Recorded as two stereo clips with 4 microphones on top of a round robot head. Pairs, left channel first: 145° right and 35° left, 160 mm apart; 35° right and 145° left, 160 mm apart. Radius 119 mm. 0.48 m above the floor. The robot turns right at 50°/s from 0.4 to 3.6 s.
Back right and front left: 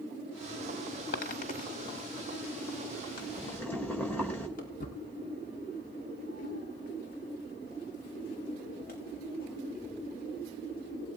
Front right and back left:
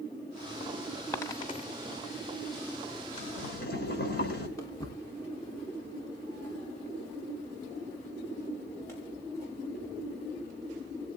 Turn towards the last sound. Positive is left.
turn(degrees=-110)